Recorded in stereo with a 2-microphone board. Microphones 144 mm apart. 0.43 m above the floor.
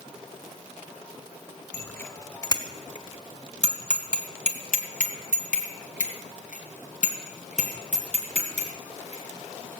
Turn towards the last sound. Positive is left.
turn(degrees=50)  # may be behind; listen again after turning